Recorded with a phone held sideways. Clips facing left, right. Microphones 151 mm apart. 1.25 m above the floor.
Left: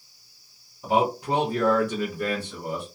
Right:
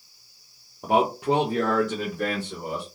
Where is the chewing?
I don't hear chewing.